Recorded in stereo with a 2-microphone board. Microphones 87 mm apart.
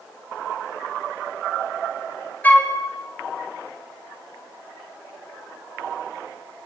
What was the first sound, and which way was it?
A flute, 20° left (ahead or behind).